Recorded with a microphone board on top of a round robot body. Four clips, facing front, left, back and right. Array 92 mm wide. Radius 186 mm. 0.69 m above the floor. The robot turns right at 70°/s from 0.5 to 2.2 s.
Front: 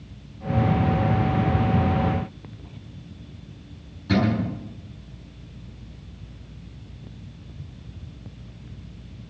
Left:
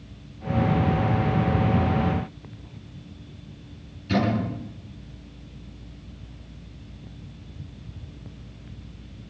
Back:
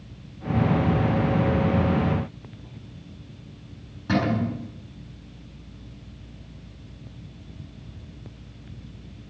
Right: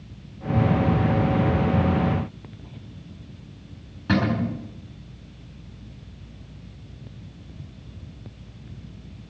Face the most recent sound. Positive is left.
turn(degrees=-110)